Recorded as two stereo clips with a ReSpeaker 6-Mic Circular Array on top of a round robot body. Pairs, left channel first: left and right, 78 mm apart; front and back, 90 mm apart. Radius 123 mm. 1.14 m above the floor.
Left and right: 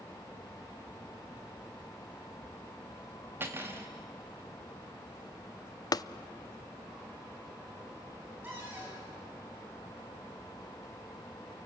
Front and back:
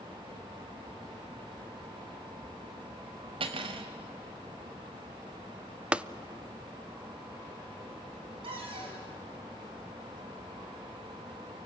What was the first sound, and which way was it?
Cutlery clinking, 155° right.